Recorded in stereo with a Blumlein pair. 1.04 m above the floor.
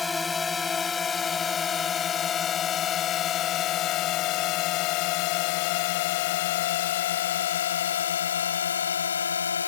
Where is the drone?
15° left; by 9.7 s 70° left.